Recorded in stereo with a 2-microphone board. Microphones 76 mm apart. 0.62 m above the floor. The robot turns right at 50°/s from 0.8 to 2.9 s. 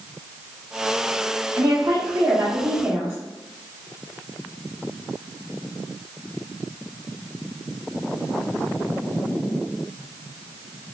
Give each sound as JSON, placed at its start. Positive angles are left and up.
{"t": 1.6, "sound": "a woman speaking", "azimuth_deg": -115, "distance_m": 1.1}